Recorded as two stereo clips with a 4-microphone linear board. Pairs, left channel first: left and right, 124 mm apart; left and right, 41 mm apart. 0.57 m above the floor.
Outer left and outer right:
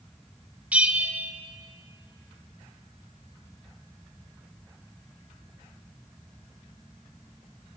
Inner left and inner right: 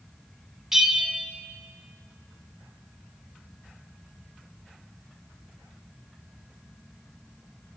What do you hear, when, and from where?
0.7 s a bell: 10° right (ahead or behind), 1.6 m